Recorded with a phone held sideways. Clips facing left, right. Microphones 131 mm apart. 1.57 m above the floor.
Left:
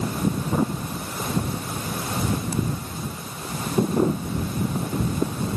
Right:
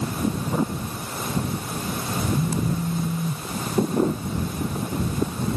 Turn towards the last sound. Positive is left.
turn(degrees=-85)